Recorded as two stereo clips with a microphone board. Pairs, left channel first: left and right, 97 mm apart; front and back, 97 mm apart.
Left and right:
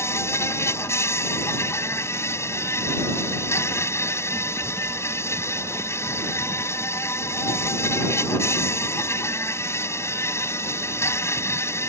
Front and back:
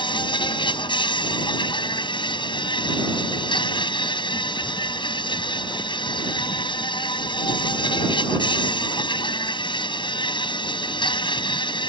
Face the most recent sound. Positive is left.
turn(degrees=30)